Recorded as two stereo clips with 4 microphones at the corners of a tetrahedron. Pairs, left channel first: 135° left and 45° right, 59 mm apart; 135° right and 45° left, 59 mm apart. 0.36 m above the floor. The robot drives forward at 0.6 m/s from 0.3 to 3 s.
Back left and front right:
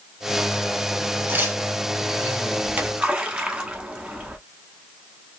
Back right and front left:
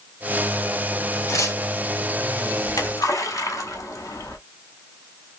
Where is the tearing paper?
100° right, 1.6 m; by 1.6 s 110° right, 1.7 m.